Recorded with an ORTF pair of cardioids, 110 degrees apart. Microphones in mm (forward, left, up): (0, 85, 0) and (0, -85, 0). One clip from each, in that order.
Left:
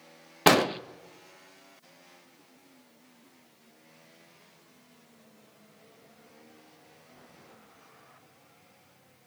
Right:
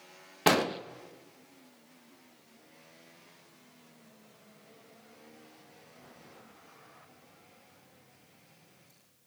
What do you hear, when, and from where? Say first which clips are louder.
0.5 s an explosion: left 4 dB; 20° left, 0.6 m